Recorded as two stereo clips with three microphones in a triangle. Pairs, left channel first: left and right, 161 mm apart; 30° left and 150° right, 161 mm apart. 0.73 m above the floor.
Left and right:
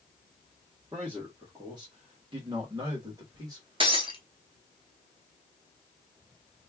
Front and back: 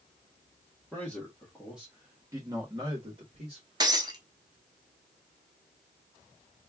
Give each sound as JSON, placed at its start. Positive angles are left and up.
{"t": 0.9, "sound": "a man speaking", "azimuth_deg": -45, "distance_m": 1.3}
{"t": 3.8, "sound": "breaking glass", "azimuth_deg": -110, "distance_m": 0.8}